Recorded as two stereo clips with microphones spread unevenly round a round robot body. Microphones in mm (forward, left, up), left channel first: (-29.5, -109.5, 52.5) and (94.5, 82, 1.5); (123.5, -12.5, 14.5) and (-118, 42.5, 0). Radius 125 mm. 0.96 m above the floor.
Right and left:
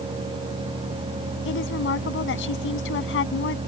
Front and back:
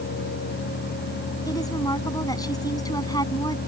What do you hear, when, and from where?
1.4 s a woman speaking: 90° right